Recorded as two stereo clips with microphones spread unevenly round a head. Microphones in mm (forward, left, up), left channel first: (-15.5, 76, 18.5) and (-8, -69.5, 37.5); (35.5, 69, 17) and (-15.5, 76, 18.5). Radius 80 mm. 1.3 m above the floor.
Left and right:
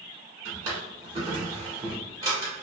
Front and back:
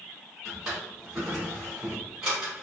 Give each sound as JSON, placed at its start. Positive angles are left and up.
{"t": 0.5, "sound": "a drawer", "azimuth_deg": -125, "distance_m": 1.1}